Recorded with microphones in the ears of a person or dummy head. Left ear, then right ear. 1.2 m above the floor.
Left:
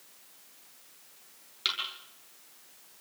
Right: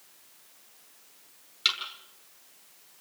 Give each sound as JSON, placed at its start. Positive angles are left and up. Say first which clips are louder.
{"t": 1.6, "sound": "a thud", "louder": "right 5 dB", "side_deg": -15, "distance_m": 8.0}